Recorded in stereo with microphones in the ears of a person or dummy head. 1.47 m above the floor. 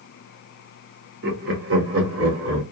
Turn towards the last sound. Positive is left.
turn(degrees=-75)  # may be behind; listen again after turning